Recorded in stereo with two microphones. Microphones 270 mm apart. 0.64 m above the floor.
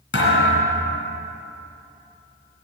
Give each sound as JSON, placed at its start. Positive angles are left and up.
{"t": 0.1, "sound": "a thud", "side_deg": 45, "distance_m": 3.0}